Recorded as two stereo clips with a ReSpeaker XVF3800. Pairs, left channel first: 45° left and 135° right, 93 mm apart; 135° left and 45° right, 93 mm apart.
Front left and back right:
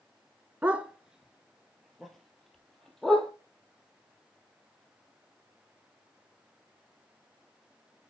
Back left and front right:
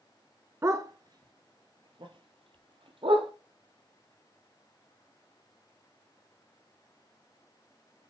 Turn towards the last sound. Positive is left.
turn(degrees=-40)